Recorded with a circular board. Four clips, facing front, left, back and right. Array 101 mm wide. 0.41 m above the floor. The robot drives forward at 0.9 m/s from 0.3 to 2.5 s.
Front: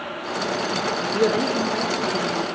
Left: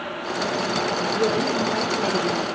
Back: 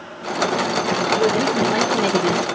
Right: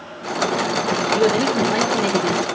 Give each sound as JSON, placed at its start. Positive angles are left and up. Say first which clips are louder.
{"t": 1.1, "sound": "a woman speaking", "louder": "right 6 dB, back 1 dB", "azimuth_deg": -60, "distance_m": 1.0}